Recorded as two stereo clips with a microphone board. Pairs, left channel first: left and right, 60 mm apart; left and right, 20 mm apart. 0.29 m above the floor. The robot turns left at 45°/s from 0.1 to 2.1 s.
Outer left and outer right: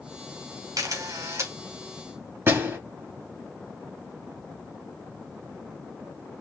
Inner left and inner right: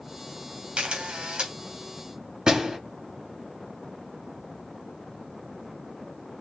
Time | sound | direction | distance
0.8 | a camera shutter | 85° right | 2.5 m
2.5 | a door slam | 40° right (ahead or behind) | 3 m